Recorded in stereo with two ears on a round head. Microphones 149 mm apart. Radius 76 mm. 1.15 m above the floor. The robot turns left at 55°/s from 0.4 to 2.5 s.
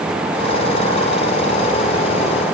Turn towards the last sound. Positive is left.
No sound to turn to.